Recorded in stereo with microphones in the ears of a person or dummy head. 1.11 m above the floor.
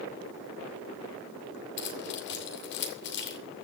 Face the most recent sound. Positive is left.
turn(degrees=55)  # may be behind; listen again after turning